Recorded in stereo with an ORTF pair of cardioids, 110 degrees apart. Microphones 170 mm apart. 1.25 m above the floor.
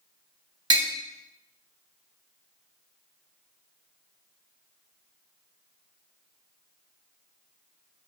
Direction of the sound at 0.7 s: 25° right.